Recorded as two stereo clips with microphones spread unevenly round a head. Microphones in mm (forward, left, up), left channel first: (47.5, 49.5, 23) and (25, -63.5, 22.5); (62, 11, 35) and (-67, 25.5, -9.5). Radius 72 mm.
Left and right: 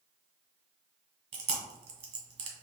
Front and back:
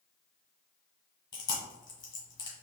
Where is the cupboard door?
I don't hear a cupboard door.